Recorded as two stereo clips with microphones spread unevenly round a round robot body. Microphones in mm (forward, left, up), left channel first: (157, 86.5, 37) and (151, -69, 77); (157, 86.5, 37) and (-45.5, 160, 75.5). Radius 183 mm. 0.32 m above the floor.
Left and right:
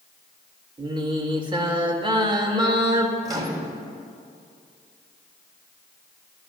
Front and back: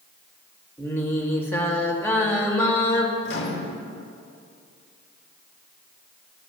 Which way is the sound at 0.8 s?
45° right.